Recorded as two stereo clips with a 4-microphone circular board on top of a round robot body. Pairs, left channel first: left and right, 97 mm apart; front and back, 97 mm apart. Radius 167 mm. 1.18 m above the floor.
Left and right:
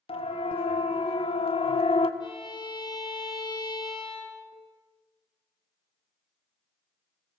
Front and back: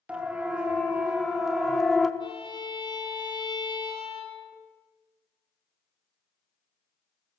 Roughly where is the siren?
Left.